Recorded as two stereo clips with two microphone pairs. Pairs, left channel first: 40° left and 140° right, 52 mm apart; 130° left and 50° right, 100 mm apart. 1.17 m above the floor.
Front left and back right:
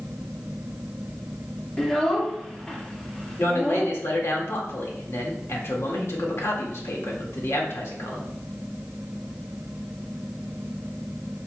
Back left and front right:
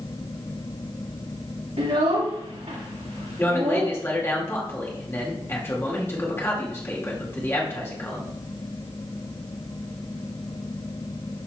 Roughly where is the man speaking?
Ahead left.